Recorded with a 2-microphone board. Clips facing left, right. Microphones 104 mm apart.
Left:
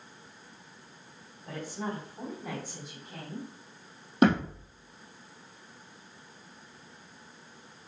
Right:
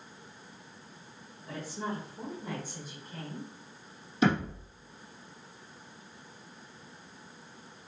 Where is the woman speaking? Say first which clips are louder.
Left 1 dB; 55° left (ahead or behind), 3 m; by 3.5 s 70° left (ahead or behind), 4 m.